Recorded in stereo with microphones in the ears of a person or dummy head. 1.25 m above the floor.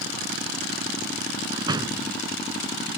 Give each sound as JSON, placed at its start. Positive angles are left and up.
{"t": 1.5, "sound": "a door slam", "side_deg": -20}